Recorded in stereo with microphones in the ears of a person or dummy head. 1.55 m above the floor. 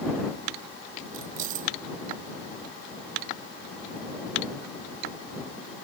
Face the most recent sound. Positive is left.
turn(degrees=-50)  # may be behind; listen again after turning